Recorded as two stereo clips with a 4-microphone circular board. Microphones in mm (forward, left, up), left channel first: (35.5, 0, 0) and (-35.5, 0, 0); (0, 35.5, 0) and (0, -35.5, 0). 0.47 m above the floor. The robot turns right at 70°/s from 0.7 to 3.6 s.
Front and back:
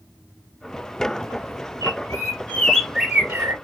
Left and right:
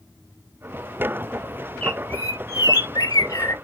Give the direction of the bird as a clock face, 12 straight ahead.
12 o'clock.